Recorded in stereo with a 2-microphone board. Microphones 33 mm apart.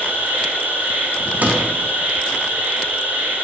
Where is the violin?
I don't hear a violin.